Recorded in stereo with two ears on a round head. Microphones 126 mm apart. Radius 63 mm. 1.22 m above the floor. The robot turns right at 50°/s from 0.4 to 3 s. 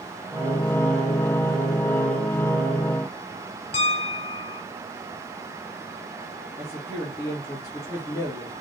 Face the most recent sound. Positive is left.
turn(degrees=20)  # may be behind; listen again after turning